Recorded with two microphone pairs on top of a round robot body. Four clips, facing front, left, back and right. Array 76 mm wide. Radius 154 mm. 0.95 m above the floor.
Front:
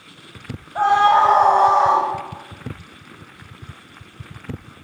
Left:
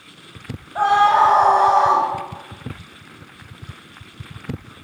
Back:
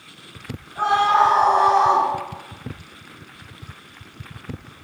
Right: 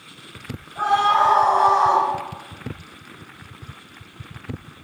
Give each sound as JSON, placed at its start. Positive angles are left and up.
{"t": 0.8, "sound": "a scream", "azimuth_deg": 40, "distance_m": 9.5}